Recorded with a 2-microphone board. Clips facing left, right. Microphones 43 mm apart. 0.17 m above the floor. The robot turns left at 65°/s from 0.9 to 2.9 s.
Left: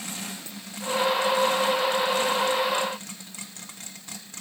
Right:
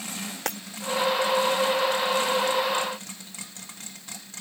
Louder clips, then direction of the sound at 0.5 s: Right 10 dB; 70° right (ahead or behind).